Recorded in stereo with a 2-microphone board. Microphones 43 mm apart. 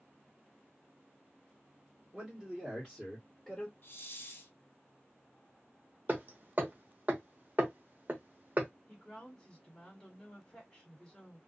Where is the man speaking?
25° right (ahead or behind), 1.4 m; by 3.7 s 10° left (ahead or behind), 1.5 m.